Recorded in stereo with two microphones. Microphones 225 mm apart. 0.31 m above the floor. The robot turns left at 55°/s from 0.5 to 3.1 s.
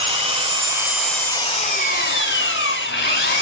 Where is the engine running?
150° right, 2.5 m; by 3.4 s 65° left, 2.5 m.